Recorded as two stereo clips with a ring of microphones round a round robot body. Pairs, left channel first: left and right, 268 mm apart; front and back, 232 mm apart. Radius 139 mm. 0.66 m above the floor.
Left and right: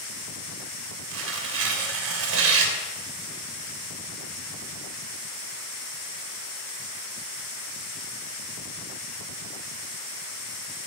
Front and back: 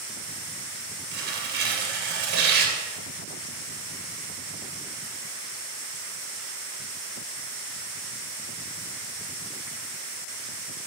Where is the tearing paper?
130° right, 2.5 m.